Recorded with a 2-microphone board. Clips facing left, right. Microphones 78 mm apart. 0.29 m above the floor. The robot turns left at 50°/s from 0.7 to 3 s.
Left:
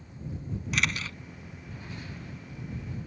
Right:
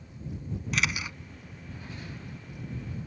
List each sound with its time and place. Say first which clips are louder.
0.7 s a camera shutter: even; centre (ahead or behind); by 1.2 s 20° right (ahead or behind)